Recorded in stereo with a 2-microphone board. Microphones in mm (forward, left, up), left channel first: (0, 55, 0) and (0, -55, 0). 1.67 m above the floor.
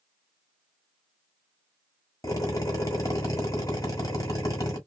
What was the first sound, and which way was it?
A drill, 25° left (ahead or behind).